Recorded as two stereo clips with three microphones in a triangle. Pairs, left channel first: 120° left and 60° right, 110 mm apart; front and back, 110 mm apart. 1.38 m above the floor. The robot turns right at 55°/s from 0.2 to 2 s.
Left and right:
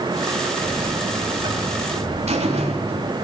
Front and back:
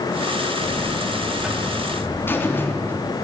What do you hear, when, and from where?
0.6 s a buzzer: 145° right, 3.5 m; by 3.1 s 70° right, 3.5 m